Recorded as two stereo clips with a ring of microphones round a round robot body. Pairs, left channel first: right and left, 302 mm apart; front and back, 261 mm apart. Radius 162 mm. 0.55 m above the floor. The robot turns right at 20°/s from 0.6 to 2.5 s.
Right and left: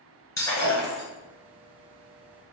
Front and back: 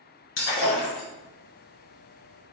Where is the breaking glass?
10° right, 1.3 m; by 1.1 s straight ahead, 1.3 m.